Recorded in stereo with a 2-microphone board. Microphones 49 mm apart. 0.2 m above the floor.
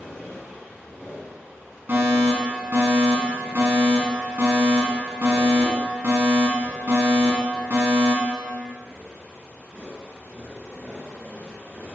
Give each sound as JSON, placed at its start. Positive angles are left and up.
{"t": 1.9, "sound": "a fire alarm", "side_deg": -45, "distance_m": 3.0}